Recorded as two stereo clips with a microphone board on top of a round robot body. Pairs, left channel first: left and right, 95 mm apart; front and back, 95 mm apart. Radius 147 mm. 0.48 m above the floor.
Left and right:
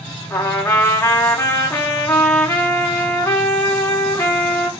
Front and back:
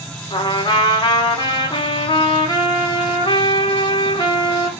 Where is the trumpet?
30° left, 1.9 m.